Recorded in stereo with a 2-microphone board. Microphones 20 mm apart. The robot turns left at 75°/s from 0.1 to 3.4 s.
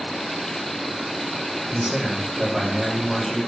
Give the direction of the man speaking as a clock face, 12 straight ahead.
3 o'clock.